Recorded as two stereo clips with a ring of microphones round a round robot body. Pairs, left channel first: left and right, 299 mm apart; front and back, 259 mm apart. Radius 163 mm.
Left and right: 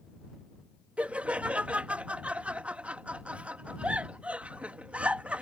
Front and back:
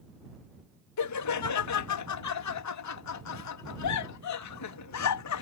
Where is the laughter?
5° right.